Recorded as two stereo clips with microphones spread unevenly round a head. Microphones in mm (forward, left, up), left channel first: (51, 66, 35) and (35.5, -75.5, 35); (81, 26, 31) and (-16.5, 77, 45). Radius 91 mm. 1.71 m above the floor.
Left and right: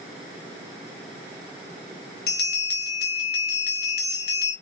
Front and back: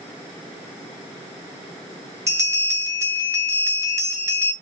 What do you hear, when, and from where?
2.3 s a bell: 95° left, 1.0 m